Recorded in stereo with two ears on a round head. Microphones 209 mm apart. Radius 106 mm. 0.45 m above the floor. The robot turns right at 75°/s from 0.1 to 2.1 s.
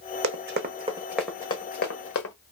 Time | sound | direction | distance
0.2 | running footsteps | 60° right (ahead or behind) | 1.3 m